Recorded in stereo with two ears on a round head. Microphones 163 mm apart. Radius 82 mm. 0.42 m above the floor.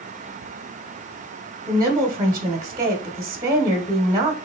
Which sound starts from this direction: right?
A woman speaking, at 1.7 s.